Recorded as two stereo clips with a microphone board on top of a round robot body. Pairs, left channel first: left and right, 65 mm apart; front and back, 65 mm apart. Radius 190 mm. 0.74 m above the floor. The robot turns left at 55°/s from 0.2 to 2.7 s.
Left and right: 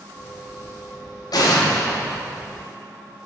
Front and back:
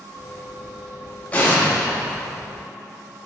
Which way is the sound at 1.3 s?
70° left.